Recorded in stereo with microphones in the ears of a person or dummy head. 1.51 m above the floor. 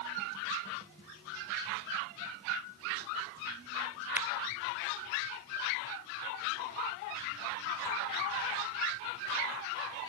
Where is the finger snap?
10° right (ahead or behind).